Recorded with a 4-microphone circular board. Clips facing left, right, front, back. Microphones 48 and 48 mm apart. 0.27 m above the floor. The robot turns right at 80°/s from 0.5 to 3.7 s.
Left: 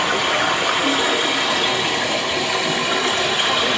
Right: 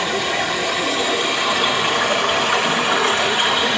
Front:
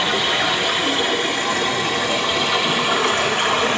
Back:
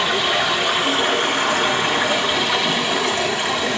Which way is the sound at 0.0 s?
100° left.